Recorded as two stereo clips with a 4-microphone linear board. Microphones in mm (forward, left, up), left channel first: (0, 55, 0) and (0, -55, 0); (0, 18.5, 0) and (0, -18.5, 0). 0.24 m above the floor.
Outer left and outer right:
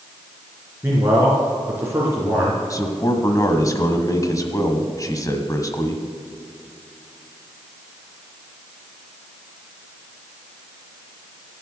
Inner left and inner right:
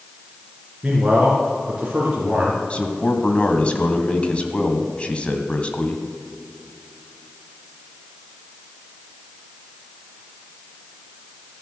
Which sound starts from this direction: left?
A man speaking, at 2.7 s.